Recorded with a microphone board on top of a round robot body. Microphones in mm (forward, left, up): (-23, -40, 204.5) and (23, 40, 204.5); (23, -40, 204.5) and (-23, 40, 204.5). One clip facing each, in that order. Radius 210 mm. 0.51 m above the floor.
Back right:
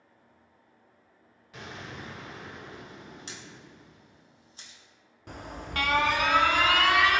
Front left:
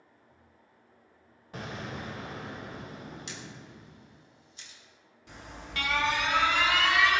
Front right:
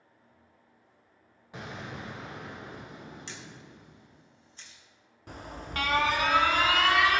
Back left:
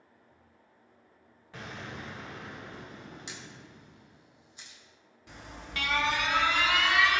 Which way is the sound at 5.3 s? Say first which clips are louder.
Back right 5 dB, front right 5 dB; 95° right.